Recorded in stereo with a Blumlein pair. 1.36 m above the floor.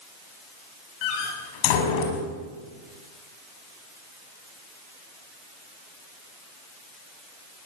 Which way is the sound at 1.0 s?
45° left.